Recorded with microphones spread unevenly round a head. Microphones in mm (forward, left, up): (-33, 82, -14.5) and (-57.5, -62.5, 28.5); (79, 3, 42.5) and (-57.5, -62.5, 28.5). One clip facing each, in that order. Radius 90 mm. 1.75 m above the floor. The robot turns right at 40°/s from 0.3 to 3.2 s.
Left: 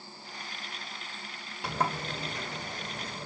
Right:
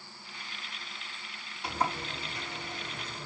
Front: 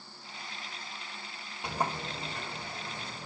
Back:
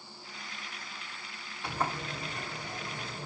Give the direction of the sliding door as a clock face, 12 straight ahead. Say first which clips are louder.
Left 1 dB, front 1 dB; 9 o'clock.